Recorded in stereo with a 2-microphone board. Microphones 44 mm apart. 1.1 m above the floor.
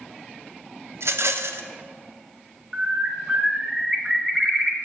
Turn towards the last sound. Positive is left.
turn(degrees=-20)  # may be behind; listen again after turning